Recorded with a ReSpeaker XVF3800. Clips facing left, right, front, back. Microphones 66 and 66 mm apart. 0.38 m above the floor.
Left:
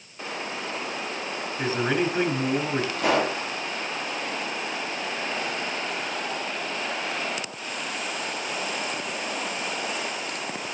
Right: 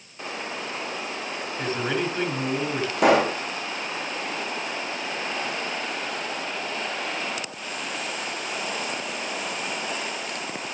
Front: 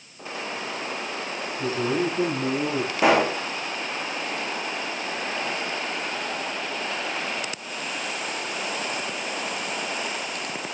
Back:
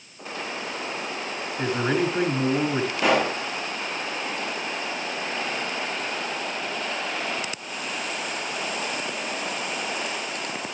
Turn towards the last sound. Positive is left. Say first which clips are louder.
# right 6 dB, front 3 dB
turn(degrees=-70)